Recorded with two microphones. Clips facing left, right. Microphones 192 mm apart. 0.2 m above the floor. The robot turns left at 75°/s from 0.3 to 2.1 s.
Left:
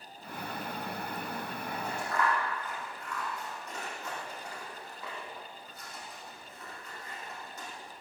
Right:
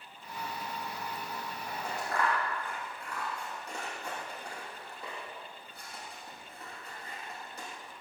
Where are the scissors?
65° right (ahead or behind), 6 m; by 7.7 s 30° right (ahead or behind), 6 m.